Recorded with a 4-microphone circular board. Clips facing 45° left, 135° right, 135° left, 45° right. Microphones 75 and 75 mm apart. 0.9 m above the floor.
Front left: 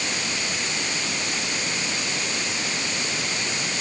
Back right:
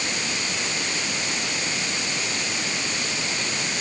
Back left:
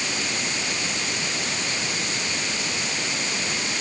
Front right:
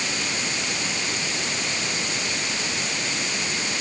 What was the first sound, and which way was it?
Only background noise.